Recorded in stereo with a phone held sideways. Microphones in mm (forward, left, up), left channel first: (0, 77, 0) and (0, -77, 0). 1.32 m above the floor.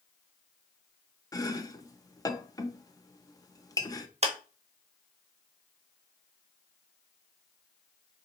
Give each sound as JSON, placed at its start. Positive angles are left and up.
{"t": 1.3, "sound": "chopping", "side_deg": 20, "distance_m": 0.5}
{"t": 4.2, "sound": "a clap", "side_deg": -45, "distance_m": 0.7}